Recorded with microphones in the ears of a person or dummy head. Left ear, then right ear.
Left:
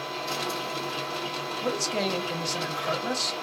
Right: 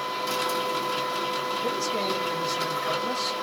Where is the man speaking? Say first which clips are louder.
Right 1 dB; 75° left (ahead or behind), 1.2 m.